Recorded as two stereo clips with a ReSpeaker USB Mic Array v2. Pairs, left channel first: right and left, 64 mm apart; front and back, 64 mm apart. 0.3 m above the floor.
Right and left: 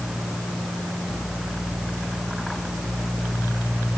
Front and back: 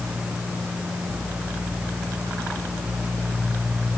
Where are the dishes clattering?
No dishes clattering in this recording.